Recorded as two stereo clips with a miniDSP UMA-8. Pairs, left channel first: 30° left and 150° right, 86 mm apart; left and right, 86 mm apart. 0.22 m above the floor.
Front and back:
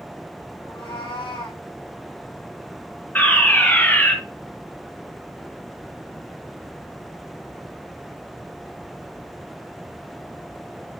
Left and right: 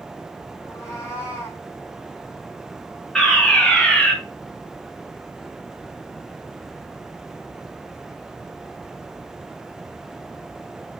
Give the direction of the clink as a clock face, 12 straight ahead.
No clink in this recording.